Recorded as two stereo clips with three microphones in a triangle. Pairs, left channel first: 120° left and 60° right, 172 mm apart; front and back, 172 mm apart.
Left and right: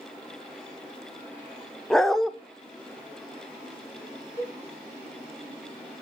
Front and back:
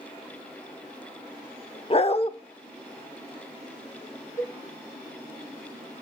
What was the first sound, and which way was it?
A dog barking, 35° left.